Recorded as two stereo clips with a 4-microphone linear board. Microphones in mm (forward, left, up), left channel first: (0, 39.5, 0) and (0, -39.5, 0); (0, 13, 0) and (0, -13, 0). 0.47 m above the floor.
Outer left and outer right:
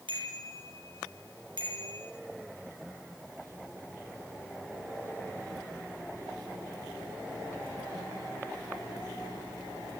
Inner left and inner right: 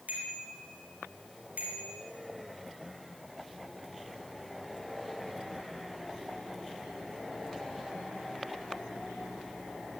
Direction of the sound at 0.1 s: 80° right.